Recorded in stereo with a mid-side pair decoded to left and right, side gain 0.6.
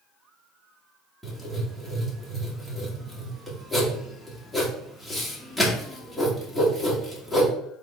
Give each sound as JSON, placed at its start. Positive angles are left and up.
{"t": 1.2, "sound": "writing", "azimuth_deg": -5, "distance_m": 1.6}